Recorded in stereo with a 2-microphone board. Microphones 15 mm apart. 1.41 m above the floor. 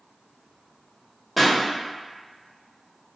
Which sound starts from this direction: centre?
A pop, at 1.4 s.